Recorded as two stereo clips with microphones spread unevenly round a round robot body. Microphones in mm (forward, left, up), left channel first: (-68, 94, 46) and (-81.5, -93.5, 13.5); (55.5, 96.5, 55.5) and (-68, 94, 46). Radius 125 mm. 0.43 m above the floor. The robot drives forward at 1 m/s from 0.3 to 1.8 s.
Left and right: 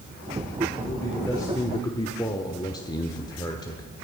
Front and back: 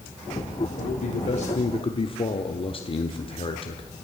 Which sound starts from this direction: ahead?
A man speaking, at 0.8 s.